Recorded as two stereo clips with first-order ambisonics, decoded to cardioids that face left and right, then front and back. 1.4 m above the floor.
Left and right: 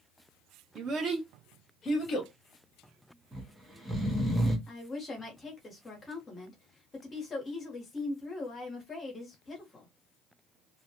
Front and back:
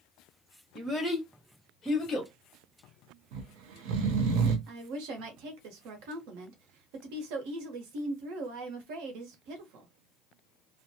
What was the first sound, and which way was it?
A child speaking, 105° right.